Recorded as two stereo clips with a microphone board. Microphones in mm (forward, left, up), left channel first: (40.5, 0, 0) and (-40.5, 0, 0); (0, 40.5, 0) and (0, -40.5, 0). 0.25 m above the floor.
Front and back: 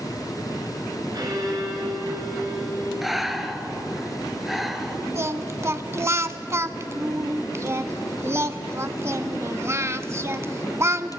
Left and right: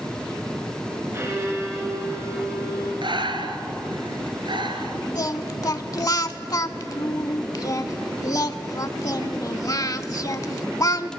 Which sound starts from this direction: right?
Breathing, at 3.0 s.